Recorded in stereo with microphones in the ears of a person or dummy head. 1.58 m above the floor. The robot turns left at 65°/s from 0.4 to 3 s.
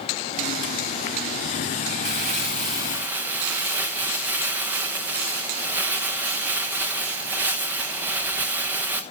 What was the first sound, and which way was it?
Crumpling, 105° right.